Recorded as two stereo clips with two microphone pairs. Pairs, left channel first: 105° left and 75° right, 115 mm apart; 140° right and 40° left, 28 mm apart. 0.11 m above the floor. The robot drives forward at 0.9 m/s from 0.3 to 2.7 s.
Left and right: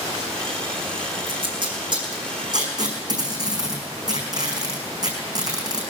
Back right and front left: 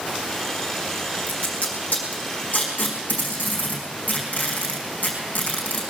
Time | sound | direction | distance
1.3 | tape being pulled | 115° right | 4.5 m